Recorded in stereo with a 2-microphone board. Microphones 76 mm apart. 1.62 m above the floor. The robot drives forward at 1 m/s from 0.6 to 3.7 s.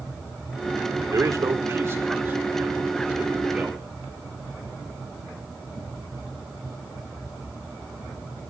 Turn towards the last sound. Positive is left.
turn(degrees=-15)  # may be behind; listen again after turning